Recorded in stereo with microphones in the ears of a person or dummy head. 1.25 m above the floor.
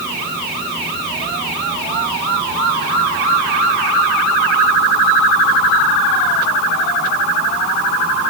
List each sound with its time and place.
Only background noise.